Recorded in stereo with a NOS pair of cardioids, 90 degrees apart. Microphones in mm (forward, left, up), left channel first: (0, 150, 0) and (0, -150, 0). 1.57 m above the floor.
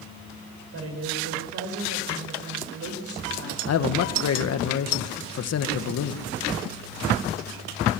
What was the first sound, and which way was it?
A woman speaking, 50° right.